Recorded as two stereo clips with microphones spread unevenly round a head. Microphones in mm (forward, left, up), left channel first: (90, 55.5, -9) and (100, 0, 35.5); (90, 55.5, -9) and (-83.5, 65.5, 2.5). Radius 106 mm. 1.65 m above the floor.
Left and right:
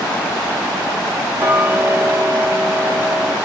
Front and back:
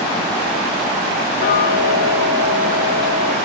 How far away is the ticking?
About 0.9 m.